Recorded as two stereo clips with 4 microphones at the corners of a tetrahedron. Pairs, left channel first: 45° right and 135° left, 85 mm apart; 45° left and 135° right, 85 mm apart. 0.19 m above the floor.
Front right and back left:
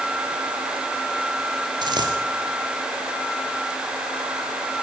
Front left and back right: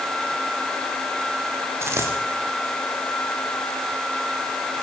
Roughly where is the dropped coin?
Behind.